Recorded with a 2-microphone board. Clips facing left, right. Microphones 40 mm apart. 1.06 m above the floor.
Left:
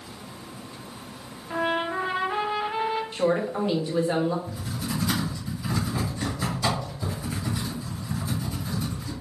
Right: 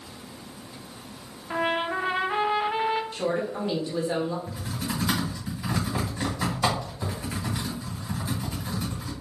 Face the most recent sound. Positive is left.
turn(degrees=-55)  # may be behind; listen again after turning